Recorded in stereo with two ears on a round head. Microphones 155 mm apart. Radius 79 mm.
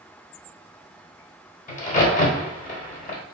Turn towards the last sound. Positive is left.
turn(degrees=45)  # may be behind; listen again after turning